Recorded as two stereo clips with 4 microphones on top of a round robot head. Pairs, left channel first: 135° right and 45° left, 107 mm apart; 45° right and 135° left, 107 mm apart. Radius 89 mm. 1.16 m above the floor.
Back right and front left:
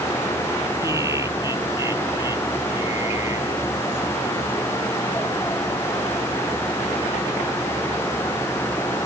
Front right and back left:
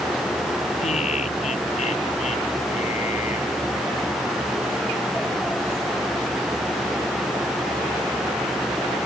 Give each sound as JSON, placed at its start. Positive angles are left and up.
{"t": 0.8, "sound": "laughter", "azimuth_deg": -20}